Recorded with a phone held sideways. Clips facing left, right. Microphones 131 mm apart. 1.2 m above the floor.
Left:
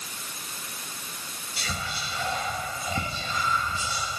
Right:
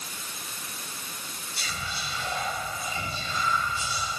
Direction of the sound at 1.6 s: 85° left.